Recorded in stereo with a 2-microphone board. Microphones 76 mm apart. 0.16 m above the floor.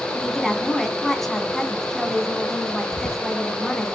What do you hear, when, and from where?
0.1 s a woman speaking: 5° left (ahead or behind), 1.6 m
2.9 s whispering: 40° left (ahead or behind), 1.8 m